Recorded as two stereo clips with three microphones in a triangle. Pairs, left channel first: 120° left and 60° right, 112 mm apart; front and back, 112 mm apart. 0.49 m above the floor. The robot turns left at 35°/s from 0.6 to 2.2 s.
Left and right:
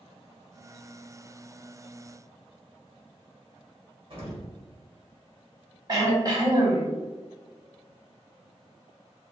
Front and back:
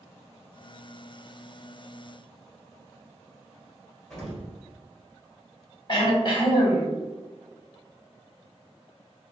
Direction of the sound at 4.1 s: 85° right.